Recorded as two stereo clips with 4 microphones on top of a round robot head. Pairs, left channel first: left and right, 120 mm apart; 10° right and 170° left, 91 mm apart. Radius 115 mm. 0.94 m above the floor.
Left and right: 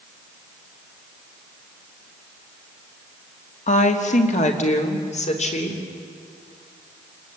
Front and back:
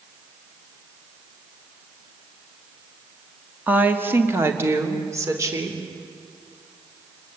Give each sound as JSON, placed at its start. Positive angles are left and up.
{"t": 3.7, "sound": "a woman speaking", "azimuth_deg": 100, "distance_m": 2.0}